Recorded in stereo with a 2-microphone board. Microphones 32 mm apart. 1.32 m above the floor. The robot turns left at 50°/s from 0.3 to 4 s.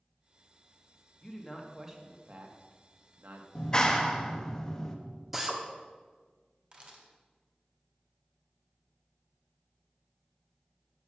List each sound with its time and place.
1.2 s a man speaking: 25° left (ahead or behind), 1.8 m; by 3.5 s 85° right, 1.8 m
3.5 s a clap: 35° left (ahead or behind), 1.2 m; by 5.0 s 10° left (ahead or behind), 1.2 m
5.3 s a drill: 10° right (ahead or behind), 1.3 m
6.7 s a camera shutter: 30° right (ahead or behind), 1.9 m